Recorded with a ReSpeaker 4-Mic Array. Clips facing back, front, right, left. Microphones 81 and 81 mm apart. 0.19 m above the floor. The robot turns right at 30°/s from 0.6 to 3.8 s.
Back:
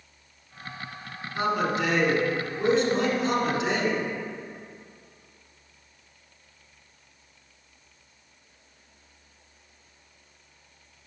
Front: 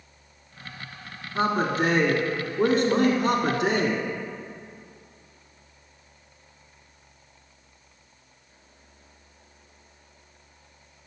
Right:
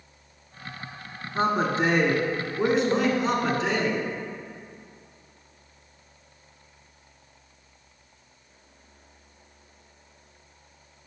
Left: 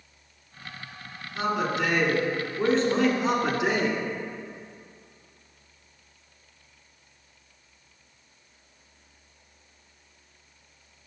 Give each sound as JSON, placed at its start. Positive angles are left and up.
{"t": 1.4, "sound": "a man speaking", "azimuth_deg": -55, "distance_m": 1.5}